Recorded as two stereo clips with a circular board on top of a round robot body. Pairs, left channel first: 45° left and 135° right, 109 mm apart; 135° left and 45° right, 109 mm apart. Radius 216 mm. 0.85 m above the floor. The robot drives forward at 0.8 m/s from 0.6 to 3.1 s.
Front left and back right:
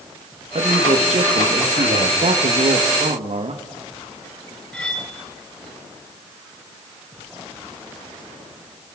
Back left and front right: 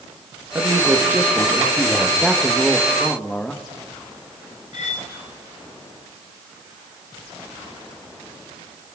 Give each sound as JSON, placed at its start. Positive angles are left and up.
{"t": 0.6, "sound": "a man speaking", "azimuth_deg": -110, "distance_m": 2.5}
{"t": 2.2, "sound": "a man speaking", "azimuth_deg": -130, "distance_m": 1.6}
{"t": 4.7, "sound": "cutlery clinking", "azimuth_deg": 125, "distance_m": 3.0}